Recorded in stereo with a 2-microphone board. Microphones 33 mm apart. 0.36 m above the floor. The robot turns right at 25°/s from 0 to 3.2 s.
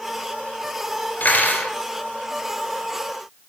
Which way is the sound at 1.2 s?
60° left (ahead or behind).